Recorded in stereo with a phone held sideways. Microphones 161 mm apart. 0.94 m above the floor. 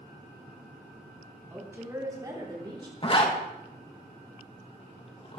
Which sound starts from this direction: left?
A zipper, at 3.0 s.